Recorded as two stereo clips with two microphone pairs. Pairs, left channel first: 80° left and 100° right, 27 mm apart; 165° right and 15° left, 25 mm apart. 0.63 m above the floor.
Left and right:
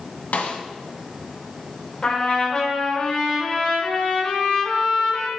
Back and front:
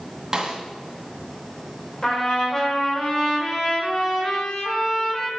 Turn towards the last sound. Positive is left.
turn(degrees=130)